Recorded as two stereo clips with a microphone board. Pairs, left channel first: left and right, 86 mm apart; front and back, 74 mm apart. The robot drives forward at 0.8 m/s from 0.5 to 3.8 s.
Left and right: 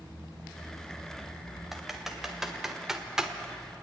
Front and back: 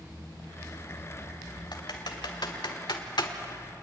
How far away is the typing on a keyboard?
About 2.5 m.